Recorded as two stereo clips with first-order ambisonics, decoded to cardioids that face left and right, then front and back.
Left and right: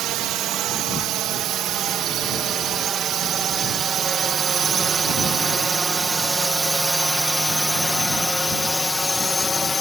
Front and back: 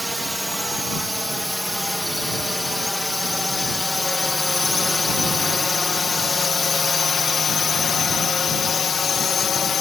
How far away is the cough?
No cough in this recording.